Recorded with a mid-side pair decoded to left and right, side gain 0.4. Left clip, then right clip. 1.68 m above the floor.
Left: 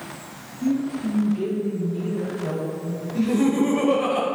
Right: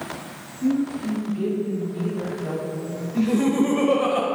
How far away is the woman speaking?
About 2 m.